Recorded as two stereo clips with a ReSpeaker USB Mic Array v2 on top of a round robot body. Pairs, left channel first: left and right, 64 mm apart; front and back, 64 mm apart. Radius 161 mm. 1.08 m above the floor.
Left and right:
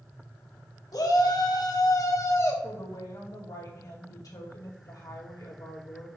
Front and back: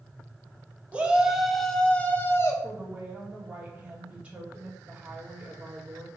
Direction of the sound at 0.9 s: 110° left.